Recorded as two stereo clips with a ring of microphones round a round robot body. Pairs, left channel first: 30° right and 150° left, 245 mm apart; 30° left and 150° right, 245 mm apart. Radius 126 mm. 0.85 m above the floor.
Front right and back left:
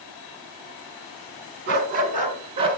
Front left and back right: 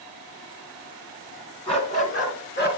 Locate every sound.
1.7 s a dog barking: 100° left, 3 m; by 2.8 s 80° left, 4 m